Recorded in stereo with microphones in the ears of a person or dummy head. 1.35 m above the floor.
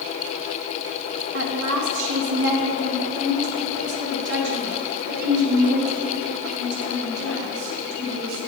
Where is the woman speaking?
75° right (ahead or behind), 1.2 m; by 8.4 s 60° right (ahead or behind), 6 m.